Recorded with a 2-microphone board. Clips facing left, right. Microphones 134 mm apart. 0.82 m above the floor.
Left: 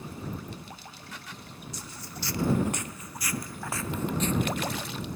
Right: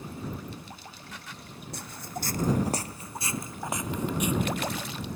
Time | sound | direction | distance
1.7 | footsteps | 60° right (ahead or behind) | ?